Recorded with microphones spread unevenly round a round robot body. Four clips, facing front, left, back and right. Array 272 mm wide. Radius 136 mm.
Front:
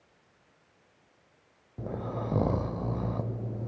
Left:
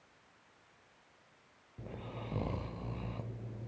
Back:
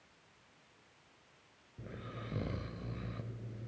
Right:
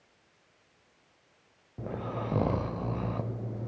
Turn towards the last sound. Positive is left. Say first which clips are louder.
# right 10 dB, front 13 dB
turn(degrees=-40)